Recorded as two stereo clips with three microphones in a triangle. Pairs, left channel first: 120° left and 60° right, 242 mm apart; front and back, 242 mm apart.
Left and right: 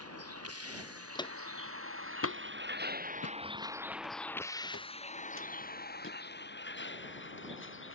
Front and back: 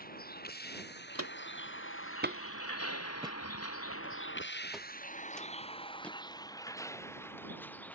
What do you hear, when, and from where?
0.0 s a vehicle: 50° right; by 8.0 s 85° left
1.1 s footsteps: 170° right; by 7.5 s 80° left